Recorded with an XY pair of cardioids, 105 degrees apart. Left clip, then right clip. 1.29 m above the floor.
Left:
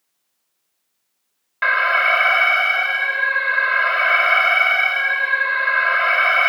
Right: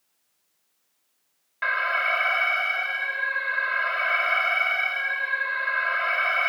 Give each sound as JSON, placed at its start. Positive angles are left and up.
{"t": 1.6, "sound": "an alarm", "azimuth_deg": 55}